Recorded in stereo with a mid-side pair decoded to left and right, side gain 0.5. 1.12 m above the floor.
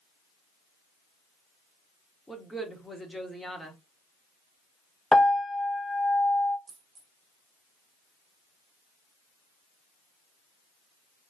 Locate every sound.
2.3 s a woman speaking: 5° left, 1.7 m
5.1 s a piano: 10° left, 0.9 m
6.7 s a dropped coin: 40° right, 1.4 m